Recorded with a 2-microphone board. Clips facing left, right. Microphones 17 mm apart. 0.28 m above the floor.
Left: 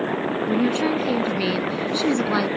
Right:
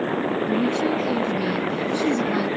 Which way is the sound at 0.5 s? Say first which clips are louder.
Left 3 dB; 45° left (ahead or behind).